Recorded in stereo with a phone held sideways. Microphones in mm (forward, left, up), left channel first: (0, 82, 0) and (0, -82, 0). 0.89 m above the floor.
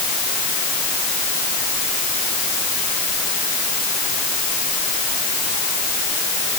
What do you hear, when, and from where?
Only background noise.